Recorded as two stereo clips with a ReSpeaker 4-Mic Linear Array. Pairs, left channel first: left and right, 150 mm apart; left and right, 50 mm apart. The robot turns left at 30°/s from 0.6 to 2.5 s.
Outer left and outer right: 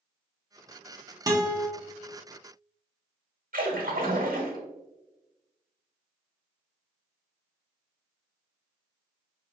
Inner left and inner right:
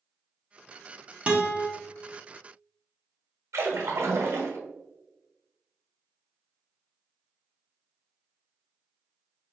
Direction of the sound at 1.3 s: 25° right (ahead or behind).